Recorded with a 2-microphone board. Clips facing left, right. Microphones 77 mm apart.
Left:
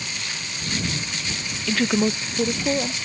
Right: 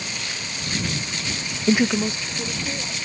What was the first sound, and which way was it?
A woman speaking, 35° right (ahead or behind).